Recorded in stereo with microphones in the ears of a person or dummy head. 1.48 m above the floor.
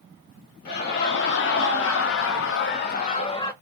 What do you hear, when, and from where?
0.7 s laughter: 55° left (ahead or behind), 1.9 m; by 3.5 s 25° left (ahead or behind), 1.0 m